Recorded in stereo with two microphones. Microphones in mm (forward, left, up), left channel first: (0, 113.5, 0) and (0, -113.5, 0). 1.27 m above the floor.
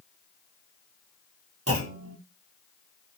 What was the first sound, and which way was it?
A clunk, 80° right.